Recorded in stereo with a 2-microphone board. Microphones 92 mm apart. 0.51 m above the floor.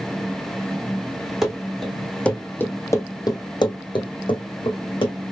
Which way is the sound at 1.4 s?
5° right (ahead or behind).